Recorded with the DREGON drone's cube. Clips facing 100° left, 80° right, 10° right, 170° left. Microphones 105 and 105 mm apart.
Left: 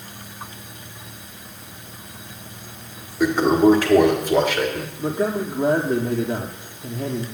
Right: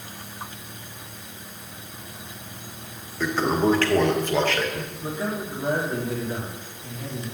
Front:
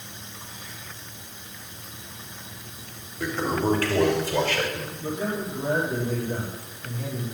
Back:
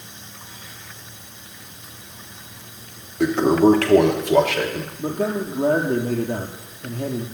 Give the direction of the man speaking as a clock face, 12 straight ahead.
7 o'clock.